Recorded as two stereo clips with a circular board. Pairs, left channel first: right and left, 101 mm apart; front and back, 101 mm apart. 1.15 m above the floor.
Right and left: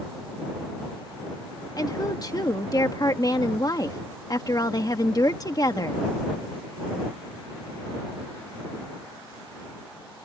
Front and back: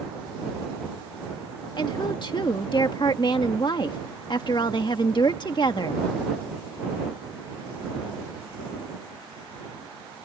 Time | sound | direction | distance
1.8 | a woman speaking | 40° right | ?